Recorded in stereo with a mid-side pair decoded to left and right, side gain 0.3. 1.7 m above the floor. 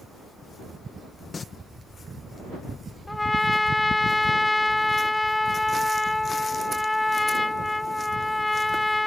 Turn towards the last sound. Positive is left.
turn(degrees=15)